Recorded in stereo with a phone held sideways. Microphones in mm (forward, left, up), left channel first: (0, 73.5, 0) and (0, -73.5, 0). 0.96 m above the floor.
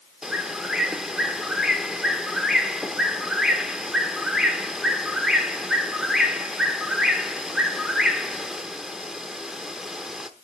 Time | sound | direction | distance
0.2 | a bird | 5° right (ahead or behind) | 0.9 m